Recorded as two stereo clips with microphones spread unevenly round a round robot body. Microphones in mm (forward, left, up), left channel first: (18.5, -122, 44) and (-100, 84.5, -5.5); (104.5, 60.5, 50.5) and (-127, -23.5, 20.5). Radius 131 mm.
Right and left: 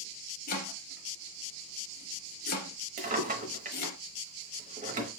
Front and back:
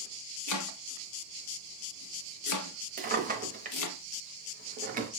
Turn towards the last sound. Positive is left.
turn(degrees=155)